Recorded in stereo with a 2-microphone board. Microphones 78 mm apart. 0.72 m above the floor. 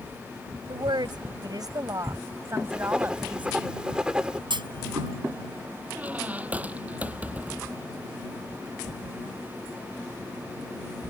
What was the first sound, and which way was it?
A woman speaking, 80° right.